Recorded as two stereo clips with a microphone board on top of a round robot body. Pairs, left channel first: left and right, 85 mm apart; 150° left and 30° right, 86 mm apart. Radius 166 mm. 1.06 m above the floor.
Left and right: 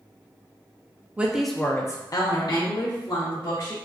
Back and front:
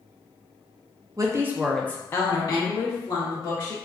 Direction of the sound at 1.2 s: 25° right.